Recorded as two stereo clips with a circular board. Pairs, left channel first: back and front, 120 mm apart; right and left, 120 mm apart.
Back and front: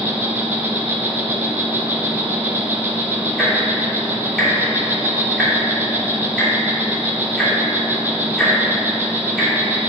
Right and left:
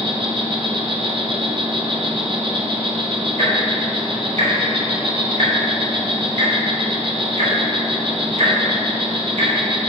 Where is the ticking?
90° left, 2.5 m.